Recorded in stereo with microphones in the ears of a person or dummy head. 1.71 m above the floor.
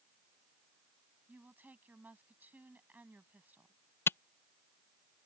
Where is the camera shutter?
15° left (ahead or behind).